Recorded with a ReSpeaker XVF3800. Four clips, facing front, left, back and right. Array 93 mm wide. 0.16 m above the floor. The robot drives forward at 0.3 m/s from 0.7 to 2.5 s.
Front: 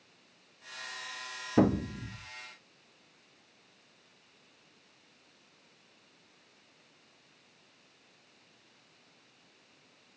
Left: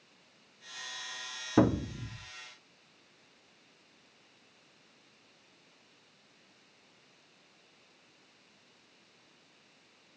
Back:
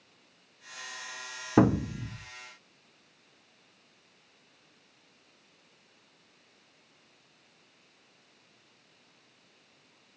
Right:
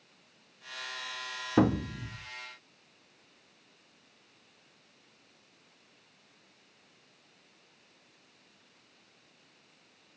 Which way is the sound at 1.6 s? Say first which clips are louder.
Even, back 3 dB; 165° right.